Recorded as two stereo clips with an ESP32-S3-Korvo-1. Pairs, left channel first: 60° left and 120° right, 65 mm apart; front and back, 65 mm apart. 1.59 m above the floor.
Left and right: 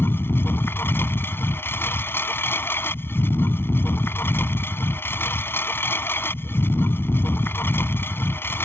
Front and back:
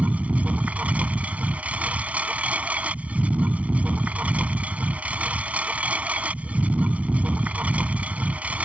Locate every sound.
0.0 s a lawn mower: 115° left